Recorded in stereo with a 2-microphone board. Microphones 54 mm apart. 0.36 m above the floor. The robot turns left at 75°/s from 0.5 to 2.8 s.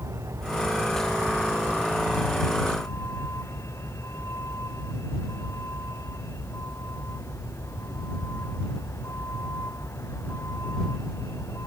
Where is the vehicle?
65° right; by 11.7 s 120° left.